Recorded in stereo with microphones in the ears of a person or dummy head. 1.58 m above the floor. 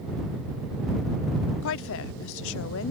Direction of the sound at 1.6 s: 75° left (ahead or behind).